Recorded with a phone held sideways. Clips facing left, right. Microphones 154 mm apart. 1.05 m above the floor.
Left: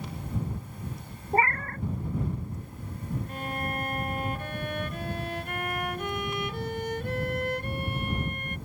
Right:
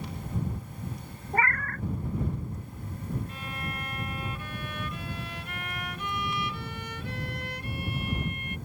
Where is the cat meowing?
30° left (ahead or behind).